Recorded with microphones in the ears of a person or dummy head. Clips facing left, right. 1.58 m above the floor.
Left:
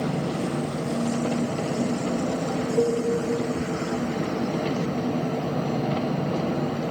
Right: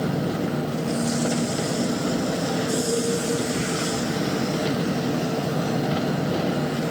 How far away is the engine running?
About 0.9 m.